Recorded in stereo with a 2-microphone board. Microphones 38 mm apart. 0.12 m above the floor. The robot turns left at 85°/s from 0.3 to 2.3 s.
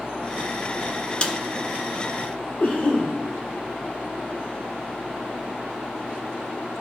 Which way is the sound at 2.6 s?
45° left (ahead or behind).